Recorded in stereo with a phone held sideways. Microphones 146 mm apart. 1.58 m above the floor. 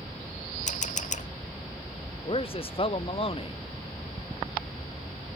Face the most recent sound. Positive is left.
turn(degrees=40)  # may be behind; listen again after turning